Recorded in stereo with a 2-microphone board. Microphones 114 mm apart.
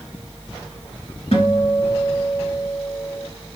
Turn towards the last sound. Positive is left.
turn(degrees=60)  # may be behind; listen again after turning